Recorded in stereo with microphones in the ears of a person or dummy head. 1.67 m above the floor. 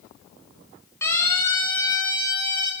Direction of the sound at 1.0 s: 20° left (ahead or behind).